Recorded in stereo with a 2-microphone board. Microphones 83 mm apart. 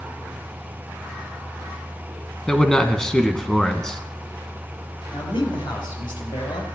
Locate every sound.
2.5 s a man speaking: 10° left (ahead or behind), 1.3 m
5.1 s a man speaking: 70° left (ahead or behind), 5 m